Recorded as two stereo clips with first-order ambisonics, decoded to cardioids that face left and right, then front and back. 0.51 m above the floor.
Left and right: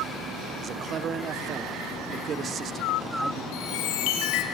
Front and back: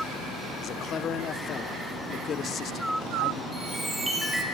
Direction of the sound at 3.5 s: 95° left.